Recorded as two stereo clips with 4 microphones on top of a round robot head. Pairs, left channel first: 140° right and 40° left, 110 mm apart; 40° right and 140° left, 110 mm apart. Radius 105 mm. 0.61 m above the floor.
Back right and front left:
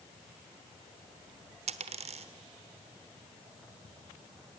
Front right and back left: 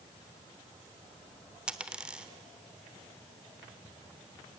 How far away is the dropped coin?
About 1.1 m.